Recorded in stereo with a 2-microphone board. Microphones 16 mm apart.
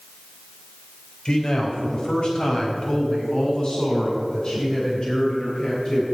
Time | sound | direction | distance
1.2 | a man speaking | 45° left (ahead or behind) | 4 m